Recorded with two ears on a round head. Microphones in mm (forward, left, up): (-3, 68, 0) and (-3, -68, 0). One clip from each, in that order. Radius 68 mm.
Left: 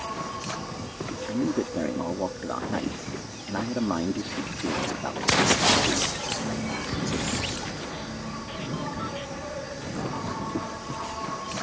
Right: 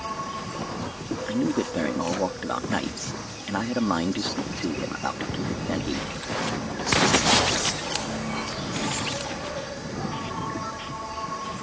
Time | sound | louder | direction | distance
0.0 | an insect | right 1 dB | 10° right (ahead or behind) | ?
1.3 | a man speaking | right 2 dB | 60° right (ahead or behind) | ?